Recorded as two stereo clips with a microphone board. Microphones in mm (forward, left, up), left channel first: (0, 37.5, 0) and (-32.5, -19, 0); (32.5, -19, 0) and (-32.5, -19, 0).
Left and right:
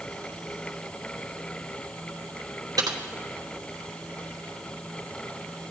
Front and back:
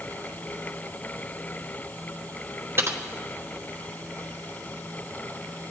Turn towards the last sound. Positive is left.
turn(degrees=-130)